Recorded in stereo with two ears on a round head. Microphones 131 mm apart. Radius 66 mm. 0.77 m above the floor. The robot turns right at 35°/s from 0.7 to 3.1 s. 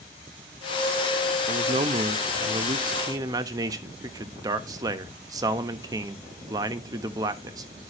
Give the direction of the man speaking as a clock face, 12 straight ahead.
3 o'clock.